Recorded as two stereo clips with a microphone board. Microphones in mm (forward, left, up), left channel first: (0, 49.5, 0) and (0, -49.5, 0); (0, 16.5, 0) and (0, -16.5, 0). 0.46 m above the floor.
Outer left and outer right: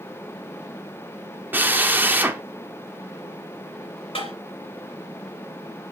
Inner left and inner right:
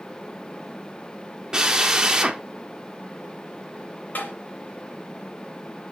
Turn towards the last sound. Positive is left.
turn(degrees=65)  # may be behind; listen again after turning